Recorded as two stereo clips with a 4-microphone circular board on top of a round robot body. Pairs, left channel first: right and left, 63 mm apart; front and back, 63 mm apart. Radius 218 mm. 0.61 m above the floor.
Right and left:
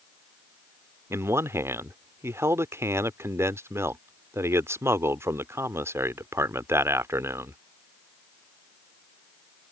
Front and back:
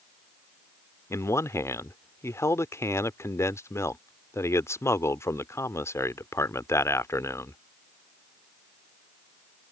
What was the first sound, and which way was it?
A man speaking, 45° left.